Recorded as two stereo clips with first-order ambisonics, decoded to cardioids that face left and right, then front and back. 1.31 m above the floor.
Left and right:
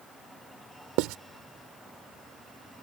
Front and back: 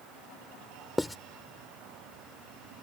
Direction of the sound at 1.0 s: 85° right.